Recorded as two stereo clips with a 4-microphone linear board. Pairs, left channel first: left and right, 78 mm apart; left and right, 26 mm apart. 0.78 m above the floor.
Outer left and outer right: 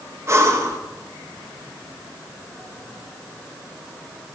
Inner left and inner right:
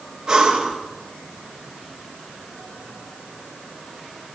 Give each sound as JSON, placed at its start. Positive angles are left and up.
{"t": 0.3, "sound": "breathing", "side_deg": -35, "distance_m": 1.3}